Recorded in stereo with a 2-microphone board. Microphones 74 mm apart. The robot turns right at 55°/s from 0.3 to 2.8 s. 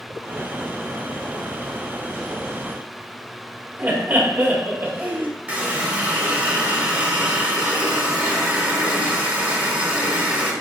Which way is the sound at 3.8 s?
25° right (ahead or behind).